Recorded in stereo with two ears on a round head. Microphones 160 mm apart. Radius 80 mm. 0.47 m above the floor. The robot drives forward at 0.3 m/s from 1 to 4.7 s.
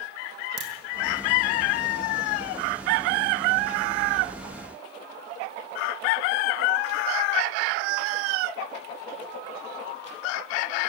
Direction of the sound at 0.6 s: 65° right (ahead or behind).